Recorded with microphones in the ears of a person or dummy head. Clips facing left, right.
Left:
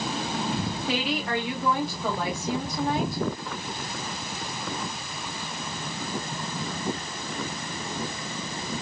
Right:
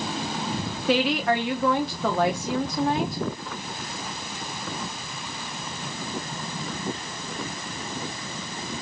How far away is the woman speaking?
About 0.6 m.